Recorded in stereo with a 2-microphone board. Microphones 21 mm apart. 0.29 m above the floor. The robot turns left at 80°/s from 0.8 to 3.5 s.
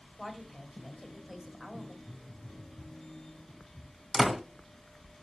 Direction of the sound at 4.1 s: 5° right (ahead or behind).